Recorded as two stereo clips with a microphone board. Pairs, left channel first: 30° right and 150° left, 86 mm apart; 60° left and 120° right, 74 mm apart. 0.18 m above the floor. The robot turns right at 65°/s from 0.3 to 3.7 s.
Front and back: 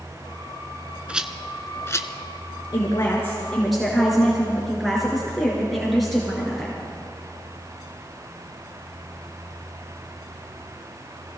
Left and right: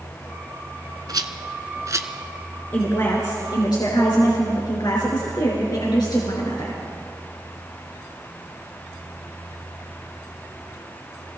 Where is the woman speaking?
5° right, 3 m; by 6.8 s 60° left, 3 m.